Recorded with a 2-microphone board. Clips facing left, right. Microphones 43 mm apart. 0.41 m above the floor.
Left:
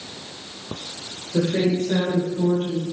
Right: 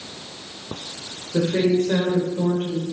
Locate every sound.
1.3 s a woman speaking: 15° right (ahead or behind), 1.5 m; by 2.8 s 55° right (ahead or behind), 2 m